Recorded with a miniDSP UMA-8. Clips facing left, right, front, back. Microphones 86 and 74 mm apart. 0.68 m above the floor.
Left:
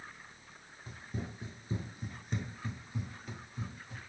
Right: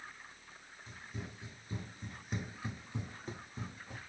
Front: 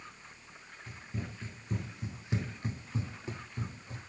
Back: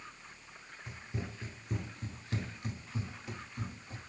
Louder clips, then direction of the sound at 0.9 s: Left 5 dB, even; 115° left.